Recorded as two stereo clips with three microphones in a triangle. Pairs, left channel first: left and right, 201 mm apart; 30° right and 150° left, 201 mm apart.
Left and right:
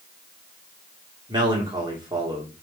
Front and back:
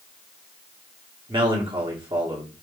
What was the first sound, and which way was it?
A man speaking, 150° right.